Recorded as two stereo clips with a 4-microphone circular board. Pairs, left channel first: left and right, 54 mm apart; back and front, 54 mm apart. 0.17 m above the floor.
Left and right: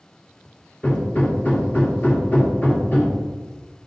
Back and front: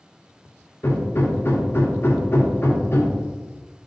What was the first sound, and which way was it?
Hammering, 145° left.